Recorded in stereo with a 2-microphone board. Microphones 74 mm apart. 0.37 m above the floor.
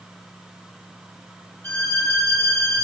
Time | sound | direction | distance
1.6 | a violin | 30° left (ahead or behind) | 1.0 m